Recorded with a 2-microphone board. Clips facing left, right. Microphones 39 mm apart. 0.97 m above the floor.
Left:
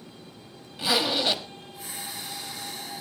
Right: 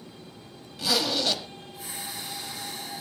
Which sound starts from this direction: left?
A zipper, at 0.8 s.